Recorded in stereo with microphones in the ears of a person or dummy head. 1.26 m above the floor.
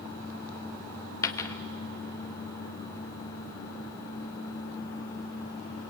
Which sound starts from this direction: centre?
A dropped coin, at 1.2 s.